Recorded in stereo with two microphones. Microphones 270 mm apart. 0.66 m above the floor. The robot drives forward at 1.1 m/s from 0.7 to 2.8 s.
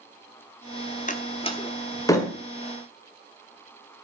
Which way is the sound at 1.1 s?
30° left (ahead or behind).